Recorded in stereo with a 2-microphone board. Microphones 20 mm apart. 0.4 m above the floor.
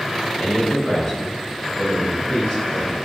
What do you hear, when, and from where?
0.4 s a man speaking: 45° left (ahead or behind), 1.1 m; by 3.0 s 60° left (ahead or behind), 2.5 m